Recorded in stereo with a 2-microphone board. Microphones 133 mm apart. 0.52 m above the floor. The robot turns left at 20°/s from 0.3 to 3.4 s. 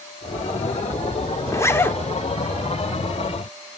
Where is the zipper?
25° left (ahead or behind), 0.6 m; by 2.0 s 15° left (ahead or behind), 0.6 m.